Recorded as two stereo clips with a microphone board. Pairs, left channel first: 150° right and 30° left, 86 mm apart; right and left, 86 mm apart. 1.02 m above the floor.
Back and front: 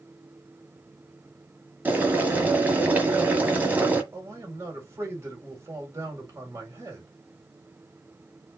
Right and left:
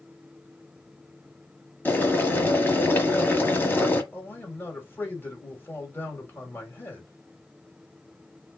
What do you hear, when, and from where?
1.9 s boiling: 30° right, 1.1 m
4.1 s a man speaking: 25° right, 1.9 m